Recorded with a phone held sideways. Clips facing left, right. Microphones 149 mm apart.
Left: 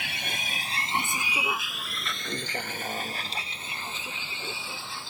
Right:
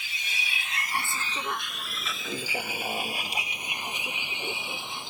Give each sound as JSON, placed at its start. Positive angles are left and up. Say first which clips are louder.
{"t": 0.0, "sound": "a vehicle", "louder": "left 4 dB", "side_deg": 75}